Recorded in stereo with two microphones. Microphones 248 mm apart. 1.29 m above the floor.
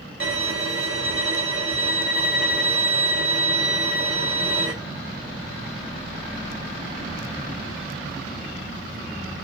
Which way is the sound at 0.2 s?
60° right (ahead or behind).